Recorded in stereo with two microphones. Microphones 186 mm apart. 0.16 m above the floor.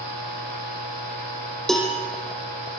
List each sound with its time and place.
1.7 s a cowbell: centre (ahead or behind), 4 m